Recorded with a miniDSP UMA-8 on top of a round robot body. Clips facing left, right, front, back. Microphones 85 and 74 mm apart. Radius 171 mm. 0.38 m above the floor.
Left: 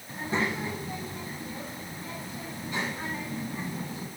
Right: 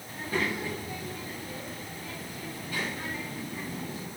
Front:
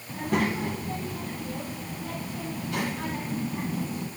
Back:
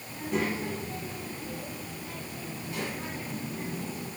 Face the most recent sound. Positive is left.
turn(degrees=20)